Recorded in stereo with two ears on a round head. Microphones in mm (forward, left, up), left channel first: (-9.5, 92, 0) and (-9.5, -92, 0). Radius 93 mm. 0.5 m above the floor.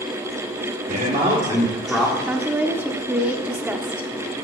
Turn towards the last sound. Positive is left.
turn(degrees=-10)  # may be behind; listen again after turning